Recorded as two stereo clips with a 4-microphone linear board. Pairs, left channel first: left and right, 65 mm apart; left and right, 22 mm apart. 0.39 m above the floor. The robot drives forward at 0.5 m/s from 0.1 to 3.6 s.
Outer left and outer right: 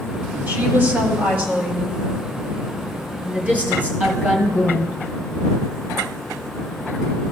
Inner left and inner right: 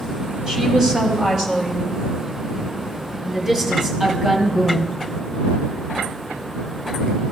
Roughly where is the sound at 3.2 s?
Right.